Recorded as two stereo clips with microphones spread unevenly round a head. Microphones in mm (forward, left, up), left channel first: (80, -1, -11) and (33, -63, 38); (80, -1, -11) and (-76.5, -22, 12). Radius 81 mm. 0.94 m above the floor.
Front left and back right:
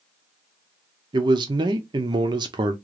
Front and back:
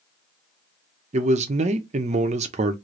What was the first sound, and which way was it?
A man speaking, straight behind.